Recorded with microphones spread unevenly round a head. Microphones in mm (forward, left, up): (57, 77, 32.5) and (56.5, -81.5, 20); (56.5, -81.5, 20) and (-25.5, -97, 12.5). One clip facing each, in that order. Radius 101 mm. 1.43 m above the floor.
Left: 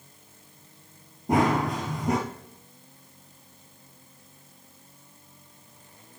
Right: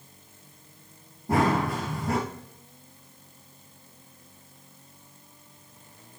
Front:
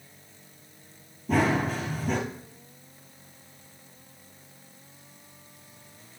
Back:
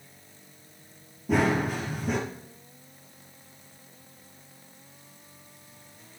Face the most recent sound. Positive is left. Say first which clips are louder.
# left 1 dB, even
turn(degrees=95)